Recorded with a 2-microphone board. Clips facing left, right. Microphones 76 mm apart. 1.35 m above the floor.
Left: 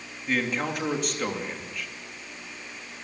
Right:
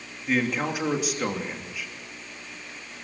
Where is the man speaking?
5° right (ahead or behind), 3 m.